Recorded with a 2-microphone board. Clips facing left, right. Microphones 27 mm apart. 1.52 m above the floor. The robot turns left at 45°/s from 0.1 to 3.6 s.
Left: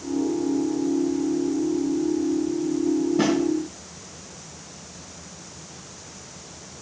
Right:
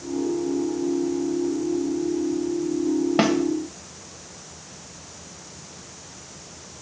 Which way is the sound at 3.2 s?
65° right (ahead or behind).